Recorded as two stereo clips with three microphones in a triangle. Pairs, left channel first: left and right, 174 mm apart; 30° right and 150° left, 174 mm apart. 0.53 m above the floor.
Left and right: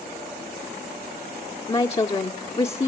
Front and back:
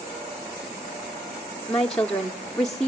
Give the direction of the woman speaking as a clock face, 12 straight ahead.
10 o'clock.